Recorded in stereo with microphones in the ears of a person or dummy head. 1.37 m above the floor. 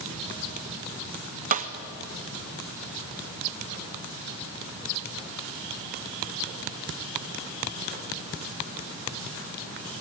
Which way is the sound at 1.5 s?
45° right (ahead or behind).